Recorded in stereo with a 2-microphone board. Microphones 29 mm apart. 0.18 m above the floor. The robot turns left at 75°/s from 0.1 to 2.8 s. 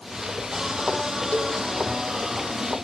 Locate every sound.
1.3 s a cowbell: 35° left (ahead or behind), 2 m; by 1.6 s 15° left (ahead or behind), 2 m